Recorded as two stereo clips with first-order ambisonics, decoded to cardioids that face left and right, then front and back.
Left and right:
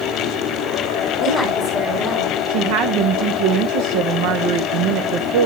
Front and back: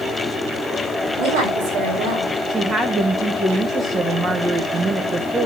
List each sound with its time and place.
1.2 s a woman speaking: 175° right, 6 m
2.5 s a woman speaking: 105° right, 0.9 m